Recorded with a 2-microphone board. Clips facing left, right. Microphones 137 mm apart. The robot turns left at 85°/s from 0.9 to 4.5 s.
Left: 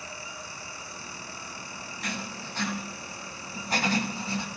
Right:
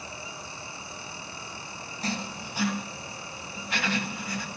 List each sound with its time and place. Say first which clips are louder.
2.0 s writing: right 4 dB; 35° right (ahead or behind), 1.0 m; by 4.5 s 20° left (ahead or behind), 1.0 m